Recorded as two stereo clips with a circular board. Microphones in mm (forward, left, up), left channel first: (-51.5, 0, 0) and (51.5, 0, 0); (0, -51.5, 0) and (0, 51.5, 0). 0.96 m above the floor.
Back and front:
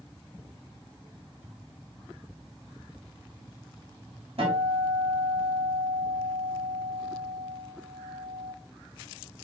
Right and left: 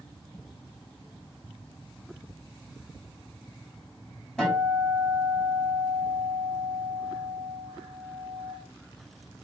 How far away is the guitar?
About 3 m.